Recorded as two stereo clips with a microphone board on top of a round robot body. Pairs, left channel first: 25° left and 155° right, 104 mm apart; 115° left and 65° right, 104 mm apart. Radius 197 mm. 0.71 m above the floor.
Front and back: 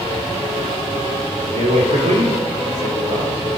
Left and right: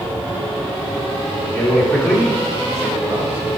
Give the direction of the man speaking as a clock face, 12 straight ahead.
6 o'clock.